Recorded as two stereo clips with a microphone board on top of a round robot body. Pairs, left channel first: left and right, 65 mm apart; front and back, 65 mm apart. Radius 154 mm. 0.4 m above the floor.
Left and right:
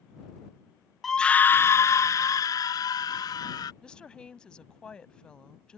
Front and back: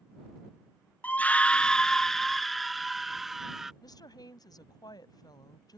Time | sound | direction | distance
1.0 | a scream | 5° left | ?
3.8 | a woman speaking | 15° left | ?